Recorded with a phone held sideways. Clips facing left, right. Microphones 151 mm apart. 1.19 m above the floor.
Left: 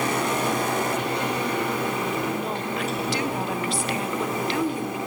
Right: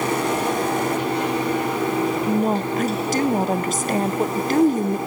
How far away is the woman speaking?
About 0.7 m.